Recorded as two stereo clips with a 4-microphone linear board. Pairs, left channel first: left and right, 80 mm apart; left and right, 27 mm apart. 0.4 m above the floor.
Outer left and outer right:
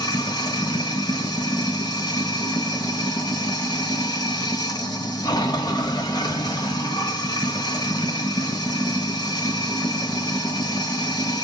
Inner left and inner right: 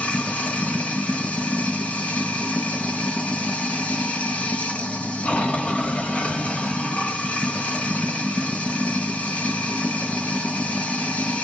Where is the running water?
55° left (ahead or behind), 1.0 m.